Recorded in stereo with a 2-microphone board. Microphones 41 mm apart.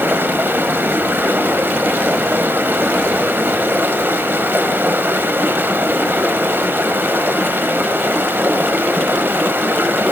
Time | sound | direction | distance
0.0 | running water | 55° right (ahead or behind) | 0.8 m